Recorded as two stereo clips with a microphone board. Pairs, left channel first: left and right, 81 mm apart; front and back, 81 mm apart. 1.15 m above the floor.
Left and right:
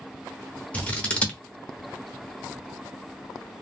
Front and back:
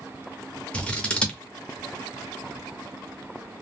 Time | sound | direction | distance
0.7 | scissors | 45° left | 0.8 m